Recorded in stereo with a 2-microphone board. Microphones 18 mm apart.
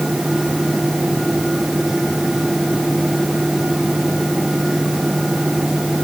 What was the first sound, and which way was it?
Only background noise.